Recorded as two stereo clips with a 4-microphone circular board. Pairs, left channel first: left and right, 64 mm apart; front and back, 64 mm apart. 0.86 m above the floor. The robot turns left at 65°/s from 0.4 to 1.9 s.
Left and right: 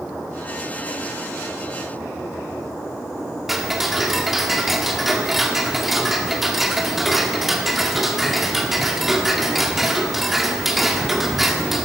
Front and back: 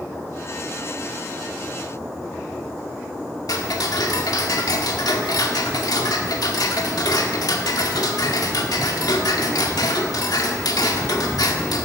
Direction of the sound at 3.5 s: 5° right.